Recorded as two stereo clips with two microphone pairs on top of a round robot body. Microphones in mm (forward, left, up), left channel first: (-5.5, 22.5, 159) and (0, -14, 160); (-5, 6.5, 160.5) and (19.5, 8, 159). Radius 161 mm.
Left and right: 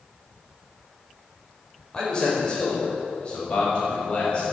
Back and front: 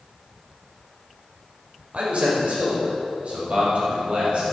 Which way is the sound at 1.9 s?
35° left.